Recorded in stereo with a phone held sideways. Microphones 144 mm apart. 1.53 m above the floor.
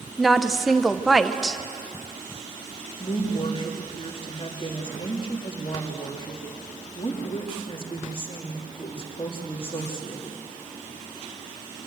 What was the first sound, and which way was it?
A woman speaking, centre (ahead or behind).